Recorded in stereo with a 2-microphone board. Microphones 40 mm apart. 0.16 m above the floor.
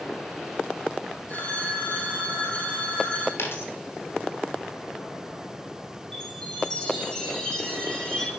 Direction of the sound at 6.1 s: 15° left (ahead or behind).